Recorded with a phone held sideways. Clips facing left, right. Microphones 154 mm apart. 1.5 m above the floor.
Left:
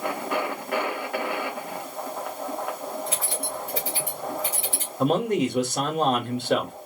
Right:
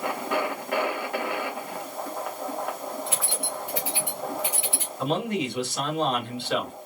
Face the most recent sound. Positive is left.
turn(degrees=45)  # may be behind; listen again after turning